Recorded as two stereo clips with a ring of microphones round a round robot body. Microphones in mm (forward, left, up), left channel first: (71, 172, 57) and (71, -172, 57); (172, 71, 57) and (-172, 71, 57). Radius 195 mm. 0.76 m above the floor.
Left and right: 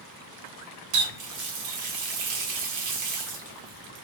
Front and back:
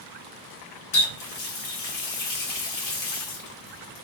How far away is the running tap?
About 1.0 m.